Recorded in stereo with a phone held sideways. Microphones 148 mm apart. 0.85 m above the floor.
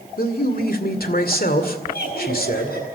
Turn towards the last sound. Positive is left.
turn(degrees=85)